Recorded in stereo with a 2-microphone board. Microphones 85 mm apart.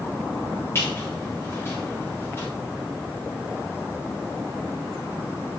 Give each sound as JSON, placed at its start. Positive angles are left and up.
{"t": 0.8, "sound": "a squeak", "side_deg": 35, "distance_m": 6.5}